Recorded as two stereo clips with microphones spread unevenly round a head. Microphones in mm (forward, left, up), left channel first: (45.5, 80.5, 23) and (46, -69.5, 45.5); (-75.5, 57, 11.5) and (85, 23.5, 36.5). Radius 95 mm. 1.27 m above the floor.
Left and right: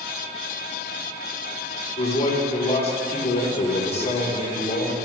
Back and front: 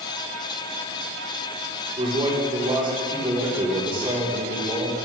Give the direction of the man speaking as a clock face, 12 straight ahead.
10 o'clock.